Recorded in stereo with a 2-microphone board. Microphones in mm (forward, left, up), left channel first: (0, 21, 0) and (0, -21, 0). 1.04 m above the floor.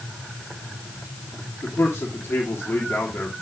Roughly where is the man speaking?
Left.